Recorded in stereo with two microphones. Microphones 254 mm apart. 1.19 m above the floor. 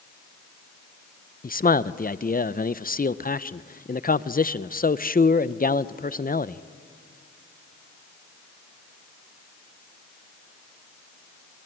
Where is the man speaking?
35° left (ahead or behind), 0.5 m.